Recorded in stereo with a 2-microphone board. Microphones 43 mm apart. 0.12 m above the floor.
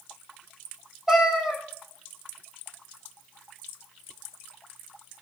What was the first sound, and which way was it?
A cat meowing, 10° right (ahead or behind).